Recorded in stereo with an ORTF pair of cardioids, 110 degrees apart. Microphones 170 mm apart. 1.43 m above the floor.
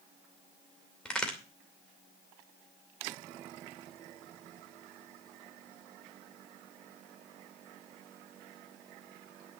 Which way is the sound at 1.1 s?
5° left.